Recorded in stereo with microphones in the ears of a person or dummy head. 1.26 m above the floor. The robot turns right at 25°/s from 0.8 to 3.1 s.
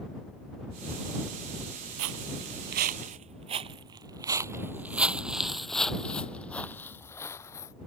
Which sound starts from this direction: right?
Footsteps, at 2.0 s.